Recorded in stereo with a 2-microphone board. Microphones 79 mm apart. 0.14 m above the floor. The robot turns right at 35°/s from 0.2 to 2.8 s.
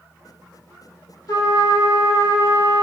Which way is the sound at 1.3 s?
95° left.